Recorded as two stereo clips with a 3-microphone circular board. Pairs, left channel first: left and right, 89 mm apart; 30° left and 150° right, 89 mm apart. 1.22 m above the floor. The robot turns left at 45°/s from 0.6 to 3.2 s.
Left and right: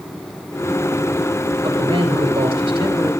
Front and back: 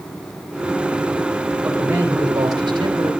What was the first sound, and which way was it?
A man speaking, 65° right.